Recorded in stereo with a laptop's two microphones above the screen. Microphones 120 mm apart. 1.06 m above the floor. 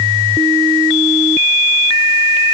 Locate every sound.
Only background noise.